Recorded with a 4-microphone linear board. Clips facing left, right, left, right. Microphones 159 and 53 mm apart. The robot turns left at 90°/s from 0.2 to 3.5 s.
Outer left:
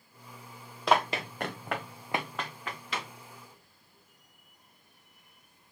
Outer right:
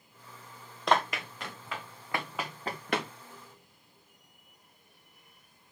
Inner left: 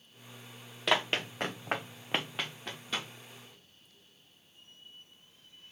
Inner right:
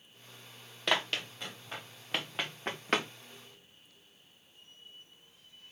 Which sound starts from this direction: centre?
Running footsteps, at 0.9 s.